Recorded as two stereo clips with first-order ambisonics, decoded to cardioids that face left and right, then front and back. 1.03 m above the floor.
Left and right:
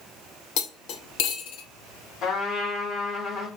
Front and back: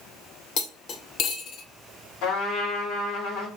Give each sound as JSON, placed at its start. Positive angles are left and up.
{"t": 0.6, "sound": "cutlery clinking", "azimuth_deg": 55, "distance_m": 0.7}
{"t": 2.2, "sound": "a trumpet", "azimuth_deg": 40, "distance_m": 1.7}